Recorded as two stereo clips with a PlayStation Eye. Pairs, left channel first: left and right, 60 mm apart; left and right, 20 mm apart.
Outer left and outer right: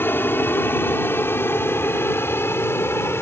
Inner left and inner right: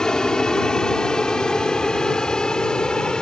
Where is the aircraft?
35° left (ahead or behind); by 3.2 s 45° left (ahead or behind).